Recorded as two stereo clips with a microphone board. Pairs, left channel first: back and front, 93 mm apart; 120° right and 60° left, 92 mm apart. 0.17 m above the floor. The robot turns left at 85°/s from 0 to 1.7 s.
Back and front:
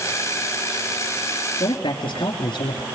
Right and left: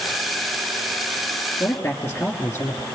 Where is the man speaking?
175° right, 2.0 m; by 2.8 s 175° left, 2.0 m.